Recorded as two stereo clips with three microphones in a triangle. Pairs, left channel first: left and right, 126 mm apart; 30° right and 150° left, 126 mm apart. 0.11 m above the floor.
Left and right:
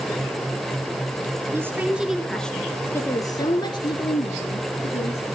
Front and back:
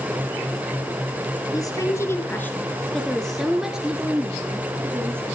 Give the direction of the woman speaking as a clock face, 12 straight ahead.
1 o'clock.